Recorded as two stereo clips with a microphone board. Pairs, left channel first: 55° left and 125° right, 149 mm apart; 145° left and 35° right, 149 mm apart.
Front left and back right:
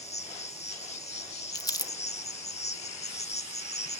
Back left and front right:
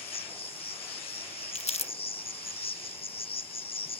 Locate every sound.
0.0 s an insect: 95° left, 0.8 m
1.6 s crumpling: 115° left, 0.7 m